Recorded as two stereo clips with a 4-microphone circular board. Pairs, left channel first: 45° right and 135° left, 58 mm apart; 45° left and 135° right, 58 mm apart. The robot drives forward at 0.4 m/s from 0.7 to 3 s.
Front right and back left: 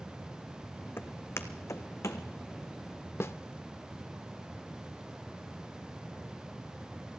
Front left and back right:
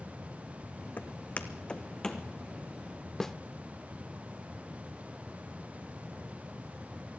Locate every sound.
1.0 s footsteps: 5° right, 1.1 m; by 2.2 s 35° right, 1.4 m
3.2 s a snare drum: 35° right, 0.5 m